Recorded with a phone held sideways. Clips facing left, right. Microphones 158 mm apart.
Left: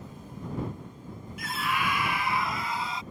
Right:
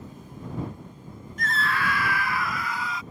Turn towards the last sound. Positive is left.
turn(degrees=25)  # may be behind; listen again after turning